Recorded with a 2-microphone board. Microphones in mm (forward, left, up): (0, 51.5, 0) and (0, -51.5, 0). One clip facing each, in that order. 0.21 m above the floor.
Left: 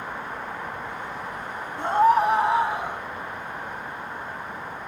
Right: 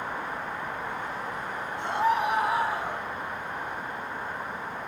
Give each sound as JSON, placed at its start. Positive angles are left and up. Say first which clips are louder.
{"t": 1.8, "sound": "a scream", "louder": "left 7 dB", "side_deg": 45, "distance_m": 2.0}